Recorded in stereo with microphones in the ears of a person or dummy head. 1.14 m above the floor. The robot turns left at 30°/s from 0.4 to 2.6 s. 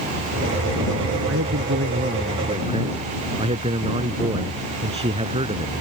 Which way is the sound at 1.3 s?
115° right.